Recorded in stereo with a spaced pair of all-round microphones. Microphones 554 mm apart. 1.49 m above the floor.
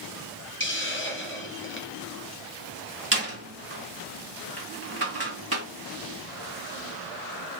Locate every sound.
0.6 s a hiss: 20° left (ahead or behind), 0.8 m
3.1 s a door slam: 25° right (ahead or behind), 1.8 m